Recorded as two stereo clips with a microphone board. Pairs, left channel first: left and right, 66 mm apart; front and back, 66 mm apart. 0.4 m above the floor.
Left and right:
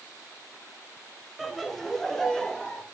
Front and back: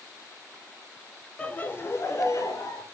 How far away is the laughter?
About 0.8 m.